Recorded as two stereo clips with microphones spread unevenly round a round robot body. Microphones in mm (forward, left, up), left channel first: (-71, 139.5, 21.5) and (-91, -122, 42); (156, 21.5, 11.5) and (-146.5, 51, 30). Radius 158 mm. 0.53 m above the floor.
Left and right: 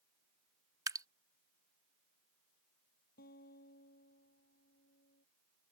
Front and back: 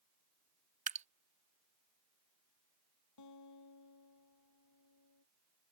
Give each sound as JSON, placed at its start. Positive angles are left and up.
{"t": 0.9, "sound": "dripping", "azimuth_deg": -160}
{"t": 3.2, "sound": "a guitar", "azimuth_deg": 25}